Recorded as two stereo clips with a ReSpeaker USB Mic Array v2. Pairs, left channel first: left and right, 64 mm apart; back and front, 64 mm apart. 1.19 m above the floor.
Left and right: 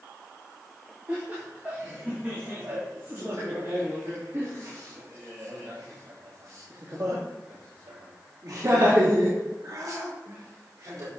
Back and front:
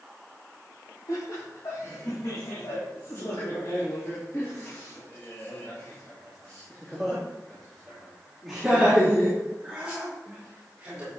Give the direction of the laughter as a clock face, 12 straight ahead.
5 o'clock.